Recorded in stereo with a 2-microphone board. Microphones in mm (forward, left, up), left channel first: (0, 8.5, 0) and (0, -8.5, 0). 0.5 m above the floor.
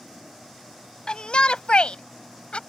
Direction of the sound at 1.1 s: 55° left (ahead or behind).